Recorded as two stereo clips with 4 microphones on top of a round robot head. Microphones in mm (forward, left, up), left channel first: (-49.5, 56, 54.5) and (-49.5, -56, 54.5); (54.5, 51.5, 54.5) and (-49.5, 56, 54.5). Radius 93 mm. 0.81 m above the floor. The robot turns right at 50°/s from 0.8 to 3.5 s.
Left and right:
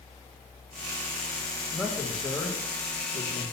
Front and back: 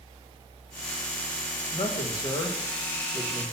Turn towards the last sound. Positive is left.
turn(degrees=80)